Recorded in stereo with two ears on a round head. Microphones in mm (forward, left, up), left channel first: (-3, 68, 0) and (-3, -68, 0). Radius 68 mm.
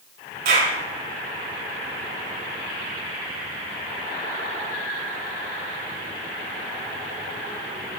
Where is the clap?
70° right (ahead or behind), 6.5 m.